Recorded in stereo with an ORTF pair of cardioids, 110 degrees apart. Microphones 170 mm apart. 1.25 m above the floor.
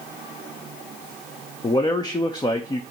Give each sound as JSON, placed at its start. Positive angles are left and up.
{"t": 1.6, "sound": "a man speaking", "azimuth_deg": 25, "distance_m": 0.8}